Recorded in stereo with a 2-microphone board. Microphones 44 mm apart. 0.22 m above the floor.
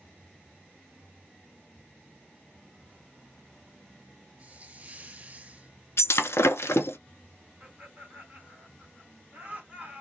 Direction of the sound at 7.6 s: 35° right (ahead or behind).